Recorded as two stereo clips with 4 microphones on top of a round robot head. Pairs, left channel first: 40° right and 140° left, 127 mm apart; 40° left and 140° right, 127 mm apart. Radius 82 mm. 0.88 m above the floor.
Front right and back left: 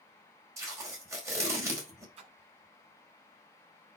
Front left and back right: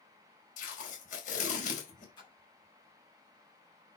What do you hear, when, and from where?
0.6 s tape being pulled: 70° left, 4.5 m
2.2 s a splash: 95° left, 7 m